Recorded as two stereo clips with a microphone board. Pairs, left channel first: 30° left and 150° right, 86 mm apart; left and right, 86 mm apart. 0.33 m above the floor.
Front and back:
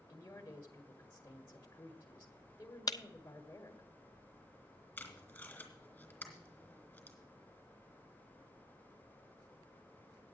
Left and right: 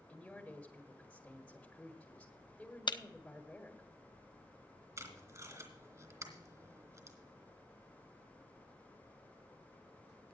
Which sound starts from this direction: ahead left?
A man speaking, at 0.1 s.